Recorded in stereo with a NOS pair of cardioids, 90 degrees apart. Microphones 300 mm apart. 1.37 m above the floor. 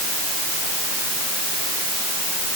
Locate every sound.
Only background noise.